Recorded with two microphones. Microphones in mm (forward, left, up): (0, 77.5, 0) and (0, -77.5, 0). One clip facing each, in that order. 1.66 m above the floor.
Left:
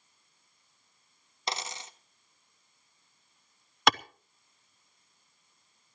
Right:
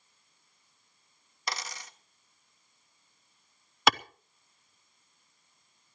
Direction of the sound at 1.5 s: 25° left (ahead or behind).